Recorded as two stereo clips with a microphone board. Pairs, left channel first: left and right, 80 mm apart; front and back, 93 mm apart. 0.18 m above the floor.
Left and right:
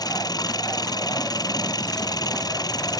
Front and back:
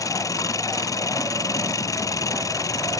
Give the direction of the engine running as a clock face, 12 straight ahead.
10 o'clock.